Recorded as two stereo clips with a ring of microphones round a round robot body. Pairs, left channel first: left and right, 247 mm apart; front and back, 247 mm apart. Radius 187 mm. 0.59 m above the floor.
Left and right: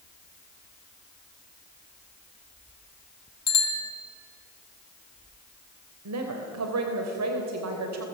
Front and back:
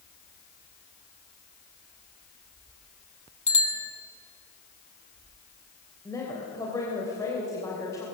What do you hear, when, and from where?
3.5 s a bicycle bell: 65° left, 4 m
6.0 s a woman speaking: 80° right, 3 m